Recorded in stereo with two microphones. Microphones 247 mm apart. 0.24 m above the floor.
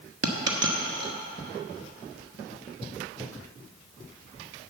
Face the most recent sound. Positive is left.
turn(degrees=-80)